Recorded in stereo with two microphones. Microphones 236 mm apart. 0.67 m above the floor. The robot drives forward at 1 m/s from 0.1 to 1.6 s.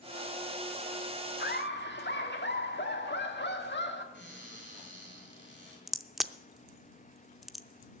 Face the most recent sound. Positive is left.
turn(degrees=0)  # may be behind; listen again after turning